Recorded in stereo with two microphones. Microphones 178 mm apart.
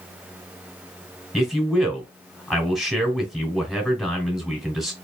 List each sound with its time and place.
1.3 s a man speaking: centre (ahead or behind), 2.0 m